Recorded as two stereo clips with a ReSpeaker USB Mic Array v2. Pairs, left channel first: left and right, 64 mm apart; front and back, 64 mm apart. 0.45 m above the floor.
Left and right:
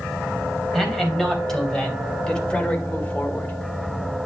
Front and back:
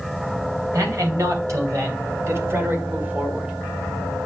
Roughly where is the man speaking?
Behind.